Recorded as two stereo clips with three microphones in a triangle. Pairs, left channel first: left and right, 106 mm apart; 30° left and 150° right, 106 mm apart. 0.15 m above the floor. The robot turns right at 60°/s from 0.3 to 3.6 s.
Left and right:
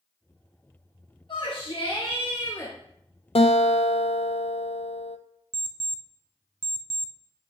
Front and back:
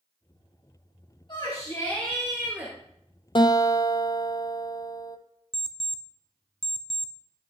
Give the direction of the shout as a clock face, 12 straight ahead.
10 o'clock.